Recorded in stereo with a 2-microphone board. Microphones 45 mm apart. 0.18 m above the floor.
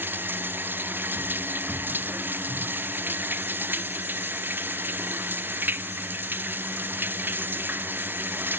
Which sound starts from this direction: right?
Running water, at 0.0 s.